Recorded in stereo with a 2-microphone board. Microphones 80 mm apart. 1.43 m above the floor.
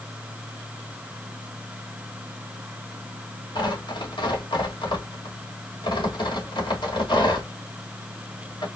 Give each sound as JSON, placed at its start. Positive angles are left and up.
{"t": 3.5, "sound": "tearing paper", "side_deg": 85, "distance_m": 2.5}